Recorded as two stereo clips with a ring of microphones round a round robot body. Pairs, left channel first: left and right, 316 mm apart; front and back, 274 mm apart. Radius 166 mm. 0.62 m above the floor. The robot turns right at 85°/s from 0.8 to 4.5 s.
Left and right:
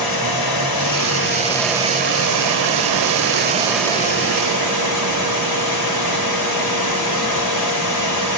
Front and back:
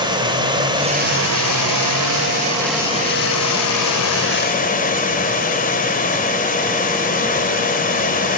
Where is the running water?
105° left, 2 m; by 8.4 s 60° left, 2 m.